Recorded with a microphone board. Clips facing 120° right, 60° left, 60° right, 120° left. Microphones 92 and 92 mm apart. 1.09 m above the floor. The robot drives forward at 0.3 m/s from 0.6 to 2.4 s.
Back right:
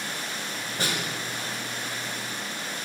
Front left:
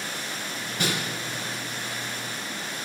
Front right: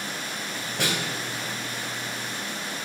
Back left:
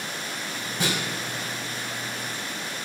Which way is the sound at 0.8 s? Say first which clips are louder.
Front left 2 dB, back left 1 dB; 70° right.